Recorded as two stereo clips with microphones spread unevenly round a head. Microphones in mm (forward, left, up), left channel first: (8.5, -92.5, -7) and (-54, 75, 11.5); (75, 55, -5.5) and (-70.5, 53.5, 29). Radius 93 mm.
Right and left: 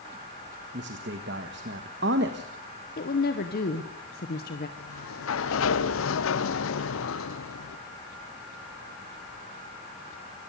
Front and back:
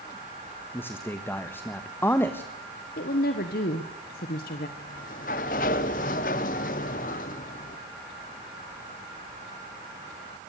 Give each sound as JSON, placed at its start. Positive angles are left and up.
{"t": 0.7, "sound": "a man speaking", "azimuth_deg": 80, "distance_m": 1.4}
{"t": 3.0, "sound": "a woman speaking", "azimuth_deg": -25, "distance_m": 1.3}
{"t": 4.8, "sound": "a sliding door", "azimuth_deg": -45, "distance_m": 0.8}